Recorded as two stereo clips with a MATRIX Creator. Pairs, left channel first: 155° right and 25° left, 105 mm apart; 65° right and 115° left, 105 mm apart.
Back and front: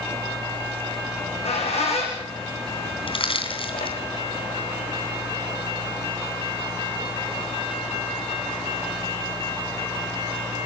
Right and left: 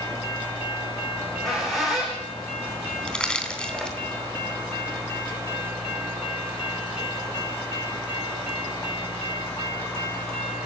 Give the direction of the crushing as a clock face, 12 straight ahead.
5 o'clock.